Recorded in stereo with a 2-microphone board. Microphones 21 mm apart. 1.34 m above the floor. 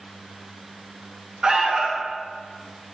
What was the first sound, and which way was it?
An alarm, 35° right (ahead or behind).